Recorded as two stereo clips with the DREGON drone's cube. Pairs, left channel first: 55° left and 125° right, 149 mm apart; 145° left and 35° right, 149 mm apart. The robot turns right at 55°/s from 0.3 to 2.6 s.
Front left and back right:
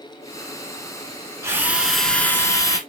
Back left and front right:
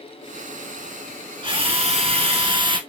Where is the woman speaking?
No woman speaking in this recording.